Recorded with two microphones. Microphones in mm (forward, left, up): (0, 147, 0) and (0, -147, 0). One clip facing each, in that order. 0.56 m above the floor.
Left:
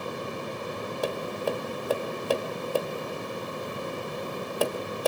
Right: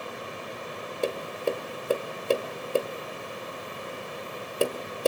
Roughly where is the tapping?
Right.